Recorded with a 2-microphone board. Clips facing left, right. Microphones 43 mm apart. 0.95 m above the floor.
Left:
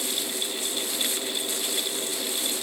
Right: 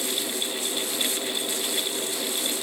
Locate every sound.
Only background noise.